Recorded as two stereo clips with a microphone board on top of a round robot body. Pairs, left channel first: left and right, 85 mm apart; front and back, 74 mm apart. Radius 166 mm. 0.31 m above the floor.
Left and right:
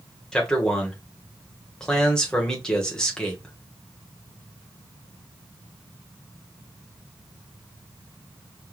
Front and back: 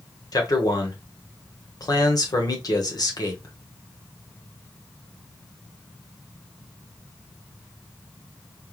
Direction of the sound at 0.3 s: 10° left.